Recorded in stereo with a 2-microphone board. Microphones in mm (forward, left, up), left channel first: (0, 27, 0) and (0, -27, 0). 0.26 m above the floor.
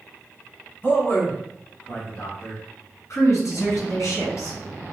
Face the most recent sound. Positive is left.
turn(degrees=60)  # may be behind; listen again after turning